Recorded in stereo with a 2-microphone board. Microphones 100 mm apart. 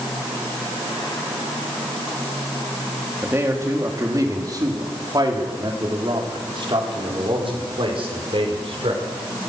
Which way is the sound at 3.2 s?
25° right (ahead or behind).